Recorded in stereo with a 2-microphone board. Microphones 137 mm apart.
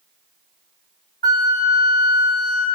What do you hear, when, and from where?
1.2 s a flute: 30° left (ahead or behind), 1.6 m